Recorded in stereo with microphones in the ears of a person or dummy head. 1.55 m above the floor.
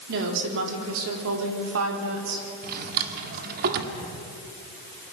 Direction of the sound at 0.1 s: 70° right (ahead or behind).